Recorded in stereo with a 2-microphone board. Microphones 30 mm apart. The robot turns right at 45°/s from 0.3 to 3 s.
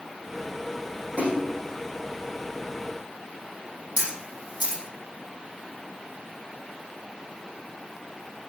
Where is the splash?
65° right (ahead or behind), 5.5 m; by 1.5 s 80° right, 5.5 m.